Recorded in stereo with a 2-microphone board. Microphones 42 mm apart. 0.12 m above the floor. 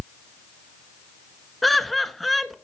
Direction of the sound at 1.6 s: 5° left (ahead or behind).